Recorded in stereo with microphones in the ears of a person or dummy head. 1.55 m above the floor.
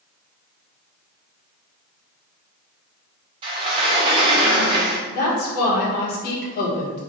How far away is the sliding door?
About 1.0 m.